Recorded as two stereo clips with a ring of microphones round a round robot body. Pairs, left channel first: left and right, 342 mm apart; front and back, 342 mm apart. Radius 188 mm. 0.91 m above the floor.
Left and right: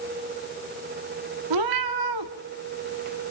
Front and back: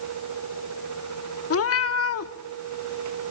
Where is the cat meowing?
50° right, 1.1 m.